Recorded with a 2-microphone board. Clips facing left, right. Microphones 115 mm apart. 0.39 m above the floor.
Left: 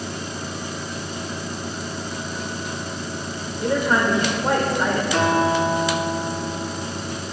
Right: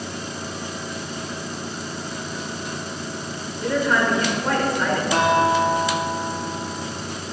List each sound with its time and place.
3.6 s a woman speaking: 20° left (ahead or behind), 1.0 m
5.1 s a guitar: 70° right (ahead or behind), 1.7 m